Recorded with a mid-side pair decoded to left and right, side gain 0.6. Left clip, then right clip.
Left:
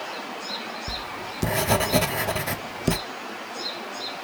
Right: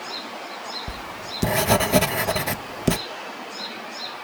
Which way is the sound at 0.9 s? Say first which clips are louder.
Left 1 dB; 20° right.